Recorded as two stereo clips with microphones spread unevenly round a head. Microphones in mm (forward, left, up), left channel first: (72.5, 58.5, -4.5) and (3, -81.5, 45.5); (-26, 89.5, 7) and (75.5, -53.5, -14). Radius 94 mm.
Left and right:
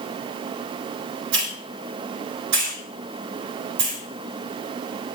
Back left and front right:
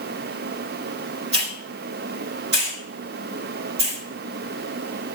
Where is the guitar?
I don't hear a guitar.